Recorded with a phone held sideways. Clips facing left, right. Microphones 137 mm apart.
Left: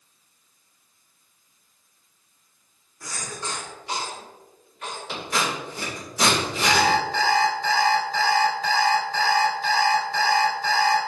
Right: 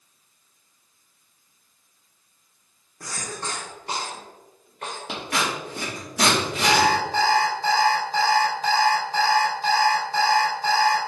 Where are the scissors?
75° right (ahead or behind), 2.5 m.